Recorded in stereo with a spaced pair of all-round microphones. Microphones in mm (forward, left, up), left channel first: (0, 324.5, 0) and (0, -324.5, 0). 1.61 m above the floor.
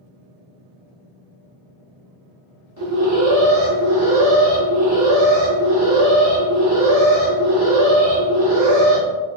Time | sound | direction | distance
2.8 | an alarm | 25° right (ahead or behind) | 1.2 m